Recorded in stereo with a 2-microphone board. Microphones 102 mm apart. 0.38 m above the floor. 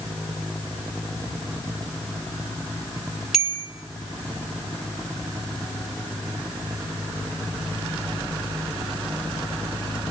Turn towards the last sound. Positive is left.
turn(degrees=-5)  # may be behind; listen again after turning